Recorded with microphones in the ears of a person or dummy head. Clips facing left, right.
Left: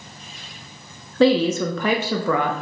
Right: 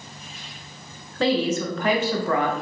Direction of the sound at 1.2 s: 70° left (ahead or behind).